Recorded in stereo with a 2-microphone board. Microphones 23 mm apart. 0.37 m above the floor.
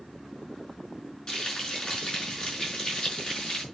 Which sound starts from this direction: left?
Frying, at 1.3 s.